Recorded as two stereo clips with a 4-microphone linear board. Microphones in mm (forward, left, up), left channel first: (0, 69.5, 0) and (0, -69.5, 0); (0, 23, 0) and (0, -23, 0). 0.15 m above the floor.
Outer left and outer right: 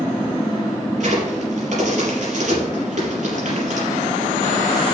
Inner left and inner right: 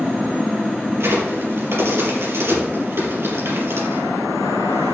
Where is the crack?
65° right (ahead or behind), 4.5 m.